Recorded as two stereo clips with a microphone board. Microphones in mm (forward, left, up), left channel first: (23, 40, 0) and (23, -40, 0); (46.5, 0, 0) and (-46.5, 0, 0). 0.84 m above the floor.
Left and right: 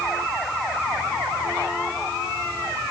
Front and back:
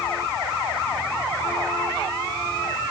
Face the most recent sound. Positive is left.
No sound to turn to.